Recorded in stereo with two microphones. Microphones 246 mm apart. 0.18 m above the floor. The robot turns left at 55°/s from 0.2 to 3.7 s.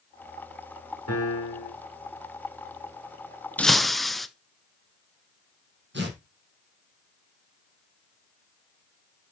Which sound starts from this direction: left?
A piano, at 1.1 s.